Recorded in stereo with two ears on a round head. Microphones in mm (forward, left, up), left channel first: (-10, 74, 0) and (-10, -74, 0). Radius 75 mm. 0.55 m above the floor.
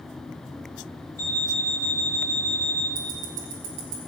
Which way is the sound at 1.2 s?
80° left.